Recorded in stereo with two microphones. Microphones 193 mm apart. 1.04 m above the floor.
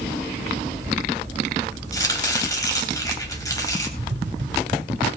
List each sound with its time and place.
1.9 s chopping: 15° left (ahead or behind), 3.5 m
4.0 s tapping: 75° right (ahead or behind), 1.6 m